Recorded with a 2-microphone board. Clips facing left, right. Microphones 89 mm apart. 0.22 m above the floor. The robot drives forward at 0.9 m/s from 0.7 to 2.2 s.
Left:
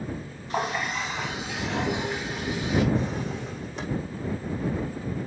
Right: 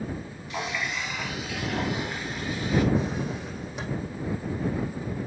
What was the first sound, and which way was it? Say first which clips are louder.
A running tap: left 4 dB; 40° left (ahead or behind).